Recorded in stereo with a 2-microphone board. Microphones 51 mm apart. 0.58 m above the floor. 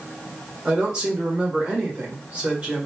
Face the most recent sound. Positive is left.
turn(degrees=-20)  # may be behind; listen again after turning